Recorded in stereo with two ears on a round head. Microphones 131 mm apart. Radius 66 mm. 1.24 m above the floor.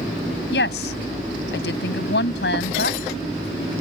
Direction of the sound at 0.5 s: 80° left.